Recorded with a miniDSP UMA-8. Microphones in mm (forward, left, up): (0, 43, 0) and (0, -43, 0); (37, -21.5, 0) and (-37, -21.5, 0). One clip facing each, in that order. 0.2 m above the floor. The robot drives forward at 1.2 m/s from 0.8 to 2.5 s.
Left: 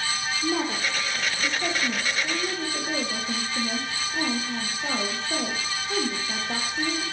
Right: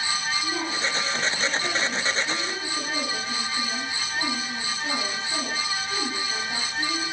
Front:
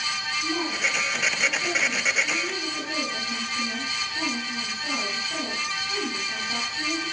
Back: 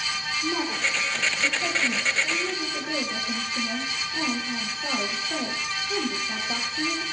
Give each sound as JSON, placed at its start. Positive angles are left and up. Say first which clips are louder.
{"t": 0.4, "sound": "a woman speaking", "louder": "left 2 dB, back 1 dB", "azimuth_deg": 110, "distance_m": 8.0}